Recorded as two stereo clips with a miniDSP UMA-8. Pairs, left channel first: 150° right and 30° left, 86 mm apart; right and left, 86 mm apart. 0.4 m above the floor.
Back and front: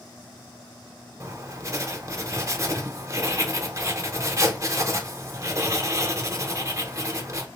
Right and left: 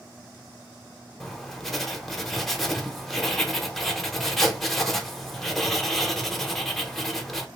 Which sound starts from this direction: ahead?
Writing, at 1.2 s.